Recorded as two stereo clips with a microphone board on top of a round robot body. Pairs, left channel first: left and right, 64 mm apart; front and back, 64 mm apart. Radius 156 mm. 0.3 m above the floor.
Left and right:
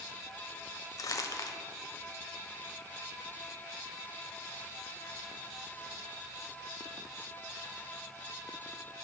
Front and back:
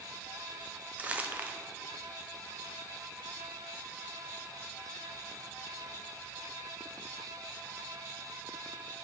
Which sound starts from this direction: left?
Crumpling, at 1.0 s.